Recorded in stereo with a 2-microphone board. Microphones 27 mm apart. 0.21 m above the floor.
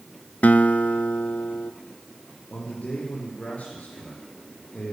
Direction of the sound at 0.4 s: 65° left (ahead or behind).